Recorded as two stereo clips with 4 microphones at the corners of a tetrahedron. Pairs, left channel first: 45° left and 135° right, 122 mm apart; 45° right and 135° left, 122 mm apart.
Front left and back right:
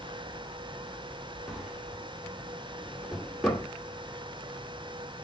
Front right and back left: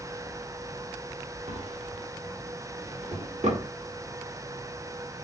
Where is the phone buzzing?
I don't hear a phone buzzing.